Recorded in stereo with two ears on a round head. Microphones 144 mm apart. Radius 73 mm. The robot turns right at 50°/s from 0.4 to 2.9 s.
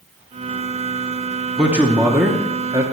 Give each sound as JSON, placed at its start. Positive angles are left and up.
{"t": 1.6, "sound": "a man speaking", "side_deg": -5, "distance_m": 0.9}